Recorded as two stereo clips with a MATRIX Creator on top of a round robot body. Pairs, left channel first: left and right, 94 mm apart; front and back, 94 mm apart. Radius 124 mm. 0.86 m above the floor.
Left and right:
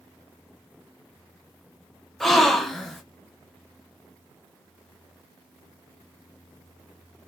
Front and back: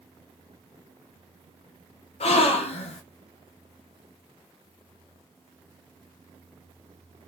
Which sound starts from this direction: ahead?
A gasp, at 2.2 s.